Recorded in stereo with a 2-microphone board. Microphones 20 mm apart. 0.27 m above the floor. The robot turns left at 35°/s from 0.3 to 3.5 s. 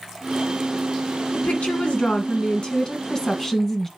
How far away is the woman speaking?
About 2 m.